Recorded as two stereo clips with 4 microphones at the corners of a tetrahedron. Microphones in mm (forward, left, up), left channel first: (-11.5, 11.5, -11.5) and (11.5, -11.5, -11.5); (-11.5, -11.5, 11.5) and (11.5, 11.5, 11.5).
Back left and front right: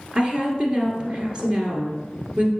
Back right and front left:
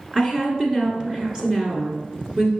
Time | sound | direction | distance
0.1 | a woman speaking | straight ahead | 1.8 m